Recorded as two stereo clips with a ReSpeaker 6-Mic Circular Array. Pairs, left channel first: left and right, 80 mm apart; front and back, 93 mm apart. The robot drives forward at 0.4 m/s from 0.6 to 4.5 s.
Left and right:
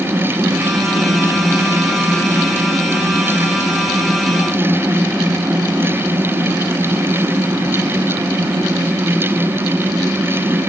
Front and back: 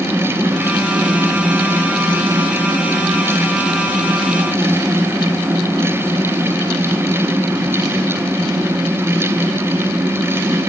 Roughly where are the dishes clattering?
I don't hear dishes clattering.